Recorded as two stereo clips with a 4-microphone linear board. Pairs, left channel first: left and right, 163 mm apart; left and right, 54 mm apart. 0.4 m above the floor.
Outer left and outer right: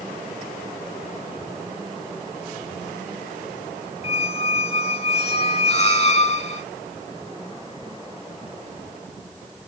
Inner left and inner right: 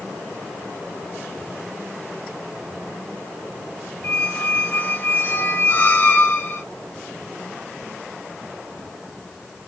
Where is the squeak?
40° left (ahead or behind), 0.8 m.